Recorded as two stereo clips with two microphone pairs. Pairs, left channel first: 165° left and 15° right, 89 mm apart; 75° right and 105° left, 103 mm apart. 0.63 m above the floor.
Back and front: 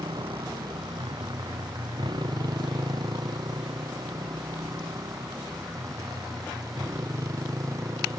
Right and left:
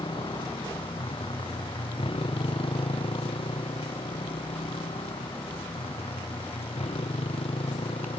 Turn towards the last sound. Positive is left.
turn(degrees=-65)